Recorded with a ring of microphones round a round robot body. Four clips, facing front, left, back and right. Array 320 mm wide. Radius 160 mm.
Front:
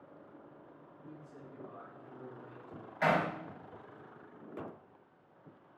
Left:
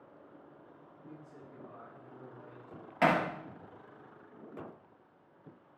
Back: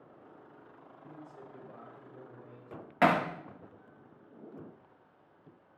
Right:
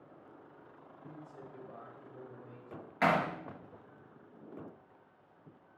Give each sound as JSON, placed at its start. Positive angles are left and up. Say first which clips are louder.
{"t": 1.1, "sound": "a man speaking", "louder": "right 1 dB, back 2 dB", "azimuth_deg": 45, "distance_m": 4.0}
{"t": 3.0, "sound": "hammering", "louder": "left 1 dB, back 4 dB", "azimuth_deg": 170, "distance_m": 1.0}